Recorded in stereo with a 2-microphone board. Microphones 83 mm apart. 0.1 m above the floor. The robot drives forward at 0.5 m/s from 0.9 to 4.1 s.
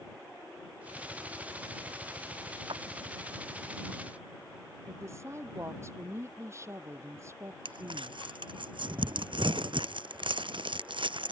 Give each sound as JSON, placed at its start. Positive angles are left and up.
{"t": 2.7, "sound": "a clap", "side_deg": -75}
{"t": 4.9, "sound": "a woman speaking", "side_deg": -35}
{"t": 7.7, "sound": "crumpling", "side_deg": -85}